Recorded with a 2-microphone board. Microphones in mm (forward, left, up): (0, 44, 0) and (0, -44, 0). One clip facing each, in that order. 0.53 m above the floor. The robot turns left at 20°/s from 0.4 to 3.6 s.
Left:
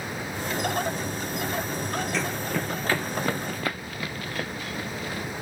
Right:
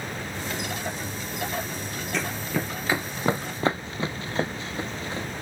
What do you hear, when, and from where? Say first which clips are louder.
2.1 s running footsteps: left 1 dB; centre (ahead or behind); by 5.3 s 30° right (ahead or behind)